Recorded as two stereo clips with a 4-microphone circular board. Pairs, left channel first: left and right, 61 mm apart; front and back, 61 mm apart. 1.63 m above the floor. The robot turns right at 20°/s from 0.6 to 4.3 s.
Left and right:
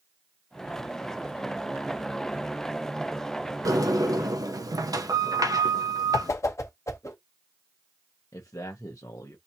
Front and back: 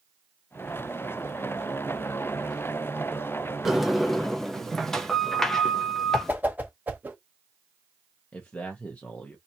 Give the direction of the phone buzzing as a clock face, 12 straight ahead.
I don't hear a phone buzzing.